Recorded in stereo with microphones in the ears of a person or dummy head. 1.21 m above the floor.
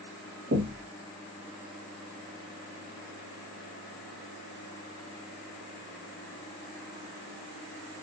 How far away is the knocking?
About 0.9 m.